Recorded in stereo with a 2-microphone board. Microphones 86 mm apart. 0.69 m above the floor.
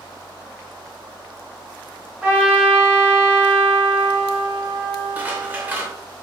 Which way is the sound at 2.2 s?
15° right (ahead or behind).